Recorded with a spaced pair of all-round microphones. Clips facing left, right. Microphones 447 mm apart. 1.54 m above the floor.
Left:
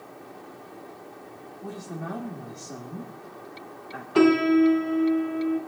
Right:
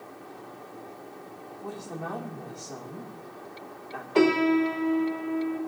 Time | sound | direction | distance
1.6 | a woman speaking | 35° left (ahead or behind) | 1.8 m
4.2 | a piano | 30° left (ahead or behind) | 1.8 m